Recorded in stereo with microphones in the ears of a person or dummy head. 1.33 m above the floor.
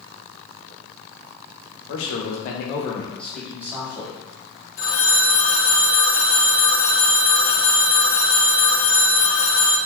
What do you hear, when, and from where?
1.9 s a man speaking: 75° left (ahead or behind), 0.8 m; by 4.2 s 25° right (ahead or behind), 1.1 m
4.8 s a phone ringing: 70° left (ahead or behind), 0.7 m